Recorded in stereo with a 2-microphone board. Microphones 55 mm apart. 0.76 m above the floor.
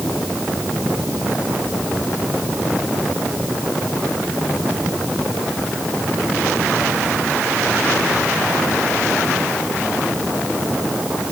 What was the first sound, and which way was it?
Only background noise.